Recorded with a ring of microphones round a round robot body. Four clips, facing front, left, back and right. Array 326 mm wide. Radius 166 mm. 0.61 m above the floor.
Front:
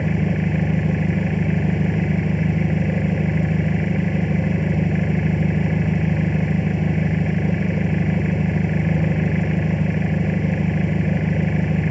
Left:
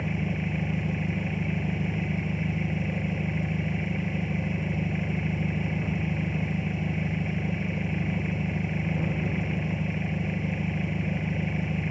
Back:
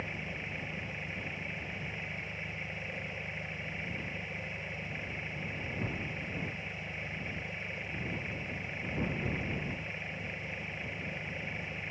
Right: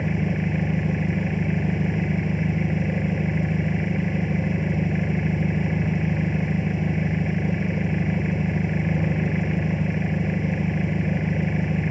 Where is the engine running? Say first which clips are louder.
Right 5 dB, front 20 dB; 20° right.